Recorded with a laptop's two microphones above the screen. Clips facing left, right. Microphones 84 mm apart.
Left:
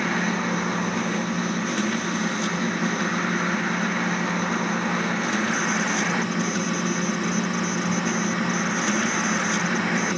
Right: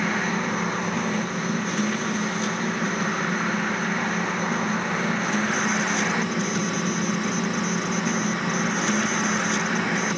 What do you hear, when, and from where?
0.0 s a machine running: centre (ahead or behind), 7.5 m